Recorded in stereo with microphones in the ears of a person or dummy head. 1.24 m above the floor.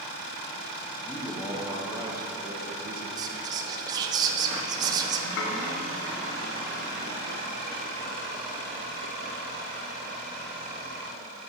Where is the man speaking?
10° left (ahead or behind), 1.4 m; by 3.1 s 50° right (ahead or behind), 1.2 m.